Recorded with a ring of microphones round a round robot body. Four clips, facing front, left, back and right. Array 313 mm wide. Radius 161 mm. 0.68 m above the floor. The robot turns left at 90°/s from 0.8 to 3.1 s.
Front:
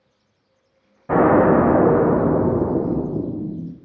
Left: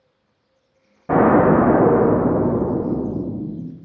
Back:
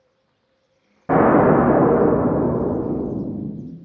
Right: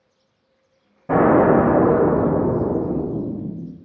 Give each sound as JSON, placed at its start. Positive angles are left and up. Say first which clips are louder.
{"t": 1.1, "sound": "an explosion", "louder": "even, even", "azimuth_deg": 165, "distance_m": 0.7}